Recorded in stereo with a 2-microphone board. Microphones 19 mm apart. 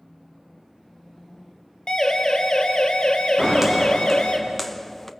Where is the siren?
40° left (ahead or behind), 3 m; by 4.4 s 60° left (ahead or behind), 3.5 m.